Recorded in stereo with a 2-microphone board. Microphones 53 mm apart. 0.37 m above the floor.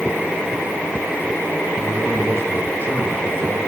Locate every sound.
1.8 s a man speaking: 50° right (ahead or behind), 8 m; by 3.6 s 45° right (ahead or behind), 9.5 m